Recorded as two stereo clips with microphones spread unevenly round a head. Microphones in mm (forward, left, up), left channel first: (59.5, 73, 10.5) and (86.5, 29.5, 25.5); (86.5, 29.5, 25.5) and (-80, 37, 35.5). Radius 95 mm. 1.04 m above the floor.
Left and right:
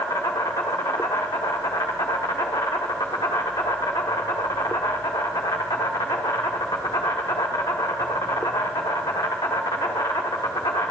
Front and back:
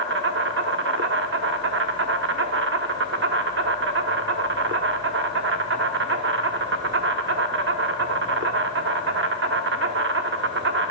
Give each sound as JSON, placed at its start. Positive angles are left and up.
{"t": 0.0, "sound": "an insect", "azimuth_deg": 175, "distance_m": 1.0}